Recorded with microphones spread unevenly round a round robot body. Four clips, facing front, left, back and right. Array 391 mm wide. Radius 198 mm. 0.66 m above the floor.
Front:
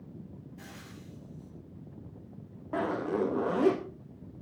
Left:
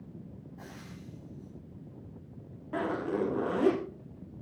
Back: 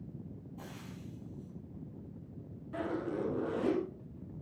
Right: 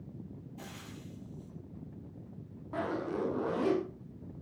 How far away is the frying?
About 6 m.